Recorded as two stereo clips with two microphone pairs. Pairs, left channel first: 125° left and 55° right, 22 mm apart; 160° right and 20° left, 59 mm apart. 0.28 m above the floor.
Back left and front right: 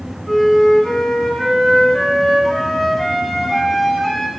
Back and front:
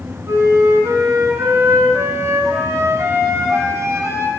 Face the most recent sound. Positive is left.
turn(degrees=45)